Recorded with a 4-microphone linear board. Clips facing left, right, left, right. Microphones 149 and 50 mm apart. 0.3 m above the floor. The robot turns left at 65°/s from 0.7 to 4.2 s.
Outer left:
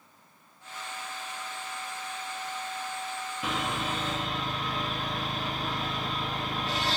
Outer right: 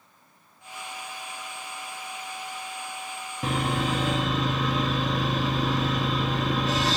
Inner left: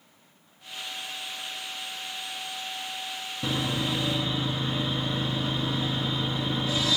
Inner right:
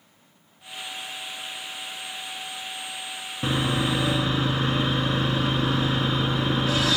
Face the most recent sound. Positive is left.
turn(degrees=-95)